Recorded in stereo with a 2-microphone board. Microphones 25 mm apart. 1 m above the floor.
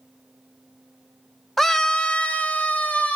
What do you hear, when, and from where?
1.6 s a scream: 10° left (ahead or behind), 0.6 m; by 3.2 s 65° left (ahead or behind), 1.3 m